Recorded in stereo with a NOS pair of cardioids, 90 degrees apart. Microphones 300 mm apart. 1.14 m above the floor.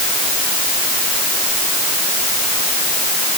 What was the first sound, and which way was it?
Only background noise.